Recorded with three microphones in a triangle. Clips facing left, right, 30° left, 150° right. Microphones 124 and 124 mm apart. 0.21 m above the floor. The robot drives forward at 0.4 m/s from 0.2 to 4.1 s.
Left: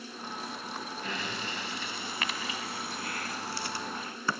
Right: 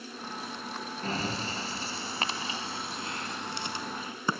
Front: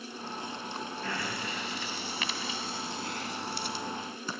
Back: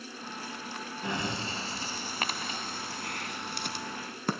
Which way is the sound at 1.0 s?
90° right.